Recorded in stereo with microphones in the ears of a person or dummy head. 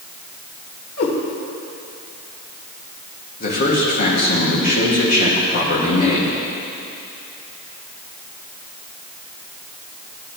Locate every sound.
1.0 s a cat meowing: 70° left (ahead or behind), 3 m
3.4 s a man speaking: 50° left (ahead or behind), 2.5 m